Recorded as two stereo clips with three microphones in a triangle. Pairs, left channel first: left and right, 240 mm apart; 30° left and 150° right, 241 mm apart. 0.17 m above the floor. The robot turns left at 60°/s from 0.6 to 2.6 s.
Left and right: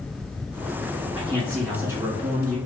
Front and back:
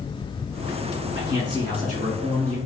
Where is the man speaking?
30° left, 1.9 m; by 2.6 s 55° right, 1.9 m.